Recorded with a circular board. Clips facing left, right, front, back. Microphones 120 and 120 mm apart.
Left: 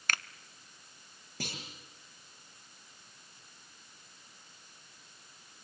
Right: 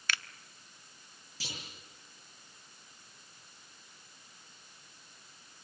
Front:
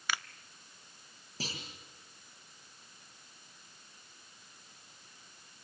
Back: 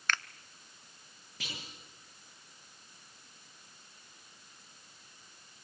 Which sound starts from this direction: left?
A finger snap, at 0.1 s.